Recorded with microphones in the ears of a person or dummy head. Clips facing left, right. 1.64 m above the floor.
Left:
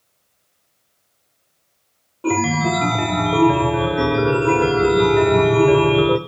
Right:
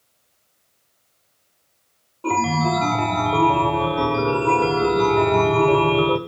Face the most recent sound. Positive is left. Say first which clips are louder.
# left 2 dB
turn(degrees=20)  # may be behind; listen again after turning